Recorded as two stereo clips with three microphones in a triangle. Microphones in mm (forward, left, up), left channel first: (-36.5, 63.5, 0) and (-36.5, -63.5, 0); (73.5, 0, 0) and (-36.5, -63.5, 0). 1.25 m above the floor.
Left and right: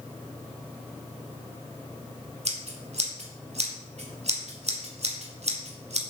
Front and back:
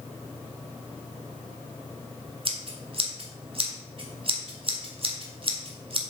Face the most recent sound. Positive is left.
turn(degrees=-110)